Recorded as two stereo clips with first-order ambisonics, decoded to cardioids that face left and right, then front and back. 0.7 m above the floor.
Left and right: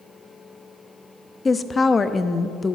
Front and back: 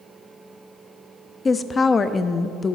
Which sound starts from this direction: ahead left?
A woman speaking, at 1.4 s.